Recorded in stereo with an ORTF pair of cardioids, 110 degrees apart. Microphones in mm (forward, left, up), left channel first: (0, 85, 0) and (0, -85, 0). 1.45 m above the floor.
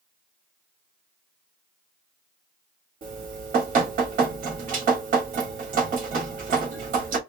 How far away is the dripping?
About 3 m.